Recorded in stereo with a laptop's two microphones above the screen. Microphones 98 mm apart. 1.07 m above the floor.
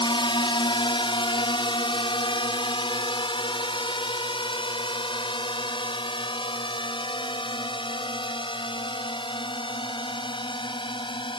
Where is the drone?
55° left (ahead or behind).